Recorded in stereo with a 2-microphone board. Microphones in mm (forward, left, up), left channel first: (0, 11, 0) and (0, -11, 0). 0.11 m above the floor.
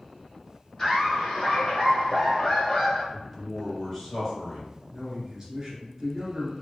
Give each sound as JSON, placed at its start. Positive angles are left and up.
{"t": 0.8, "sound": "laughter", "side_deg": 20, "distance_m": 1.6}
{"t": 3.1, "sound": "a man speaking", "side_deg": 30, "distance_m": 1.4}
{"t": 4.9, "sound": "a man speaking", "side_deg": -25, "distance_m": 1.5}